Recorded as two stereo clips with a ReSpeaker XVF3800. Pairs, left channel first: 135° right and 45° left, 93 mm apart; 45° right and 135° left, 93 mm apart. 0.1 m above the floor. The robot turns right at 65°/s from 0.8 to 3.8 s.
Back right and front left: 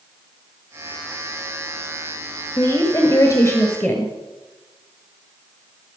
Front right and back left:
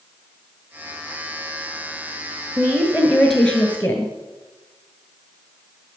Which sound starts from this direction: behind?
A woman speaking, at 2.6 s.